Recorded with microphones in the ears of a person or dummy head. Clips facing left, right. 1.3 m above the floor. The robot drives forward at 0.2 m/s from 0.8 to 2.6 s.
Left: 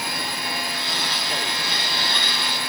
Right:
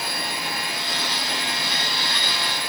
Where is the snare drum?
No snare drum in this recording.